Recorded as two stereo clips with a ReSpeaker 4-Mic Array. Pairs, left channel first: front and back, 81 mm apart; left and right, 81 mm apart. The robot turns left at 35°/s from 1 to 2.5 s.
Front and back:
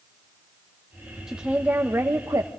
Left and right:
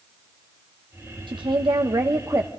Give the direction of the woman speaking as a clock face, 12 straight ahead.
3 o'clock.